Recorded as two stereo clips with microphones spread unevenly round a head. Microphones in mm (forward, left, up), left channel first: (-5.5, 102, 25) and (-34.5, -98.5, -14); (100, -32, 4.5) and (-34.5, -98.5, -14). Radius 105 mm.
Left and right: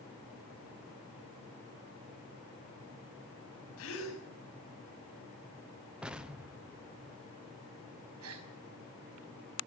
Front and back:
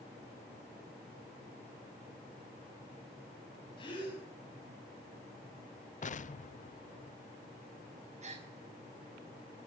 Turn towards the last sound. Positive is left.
turn(degrees=-110)